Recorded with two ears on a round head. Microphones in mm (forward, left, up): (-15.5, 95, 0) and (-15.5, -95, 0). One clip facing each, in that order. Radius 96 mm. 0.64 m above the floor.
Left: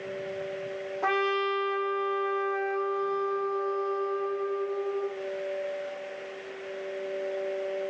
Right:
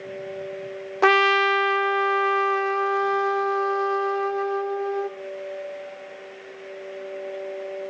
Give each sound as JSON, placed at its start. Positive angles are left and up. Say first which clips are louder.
{"t": 1.0, "sound": "a trumpet", "louder": "right 8 dB", "side_deg": -75, "distance_m": 0.7}